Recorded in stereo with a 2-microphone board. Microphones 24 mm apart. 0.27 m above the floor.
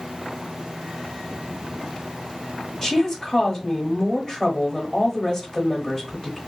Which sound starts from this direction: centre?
A woman speaking, at 2.8 s.